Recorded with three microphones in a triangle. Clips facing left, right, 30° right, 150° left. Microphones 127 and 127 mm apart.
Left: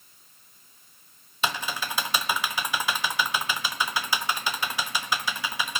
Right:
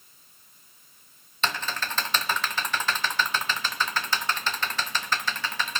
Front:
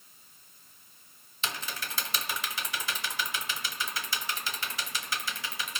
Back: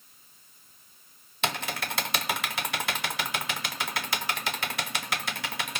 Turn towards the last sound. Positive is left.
turn(degrees=170)